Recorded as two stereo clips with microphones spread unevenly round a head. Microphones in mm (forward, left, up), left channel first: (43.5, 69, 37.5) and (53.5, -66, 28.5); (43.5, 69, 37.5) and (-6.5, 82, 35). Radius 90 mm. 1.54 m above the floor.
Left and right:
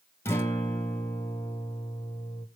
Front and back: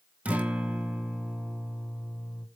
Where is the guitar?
140° left, 1.1 m.